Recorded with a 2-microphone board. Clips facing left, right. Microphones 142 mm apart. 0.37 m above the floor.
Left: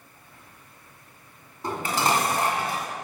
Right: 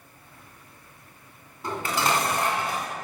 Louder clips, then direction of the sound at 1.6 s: Left 1 dB; 20° left (ahead or behind).